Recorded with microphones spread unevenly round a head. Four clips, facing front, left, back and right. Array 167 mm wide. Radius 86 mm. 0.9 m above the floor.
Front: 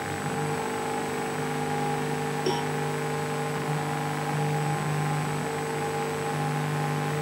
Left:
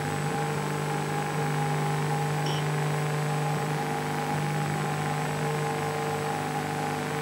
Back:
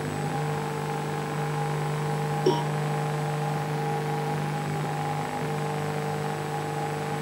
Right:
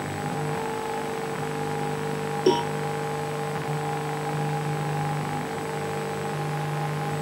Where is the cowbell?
115° right.